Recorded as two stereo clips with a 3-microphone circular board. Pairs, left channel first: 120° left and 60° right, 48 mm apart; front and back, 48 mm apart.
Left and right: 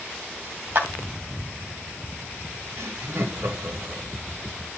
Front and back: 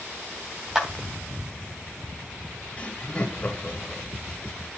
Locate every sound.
0.8 s a clap: 100° right, 2.5 m
2.8 s laughter: 70° right, 2.5 m